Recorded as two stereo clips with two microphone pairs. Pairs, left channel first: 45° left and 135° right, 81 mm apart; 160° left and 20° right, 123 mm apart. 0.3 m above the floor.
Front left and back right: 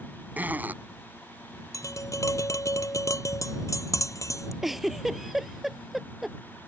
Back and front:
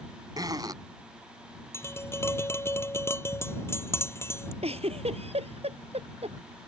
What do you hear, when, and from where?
0.4 s a zipper: 70° right
1.7 s tapping: 90° left
4.6 s a giggle: 50° right